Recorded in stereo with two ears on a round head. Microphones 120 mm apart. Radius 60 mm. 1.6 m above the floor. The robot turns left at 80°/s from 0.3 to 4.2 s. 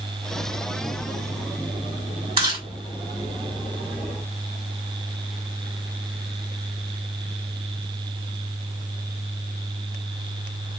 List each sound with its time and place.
2.4 s chewing: 35° right (ahead or behind), 2 m; by 2.6 s 20° right (ahead or behind), 2 m